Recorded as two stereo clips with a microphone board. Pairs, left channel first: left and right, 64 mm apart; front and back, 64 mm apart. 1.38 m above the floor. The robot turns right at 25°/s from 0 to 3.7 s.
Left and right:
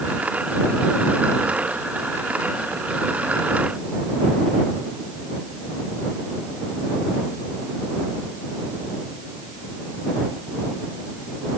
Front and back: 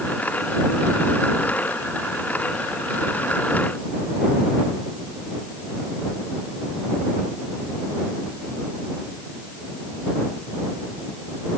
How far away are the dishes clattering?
No dishes clattering in this recording.